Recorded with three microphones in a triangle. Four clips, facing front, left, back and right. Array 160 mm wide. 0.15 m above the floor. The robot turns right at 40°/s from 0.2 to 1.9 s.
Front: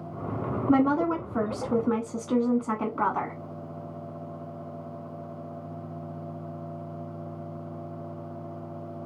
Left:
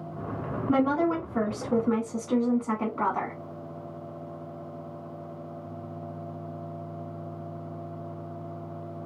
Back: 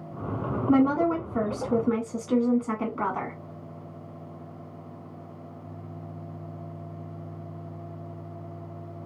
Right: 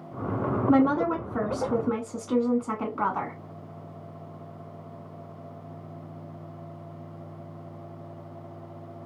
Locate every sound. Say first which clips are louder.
0.7 s a woman speaking: right 1 dB, back 1 dB; 65° right, 1.2 m; by 3.3 s 15° right, 1.2 m